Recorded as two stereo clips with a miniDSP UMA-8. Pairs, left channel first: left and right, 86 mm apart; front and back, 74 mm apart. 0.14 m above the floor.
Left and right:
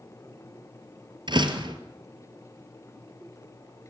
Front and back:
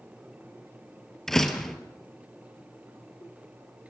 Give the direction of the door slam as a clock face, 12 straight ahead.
3 o'clock.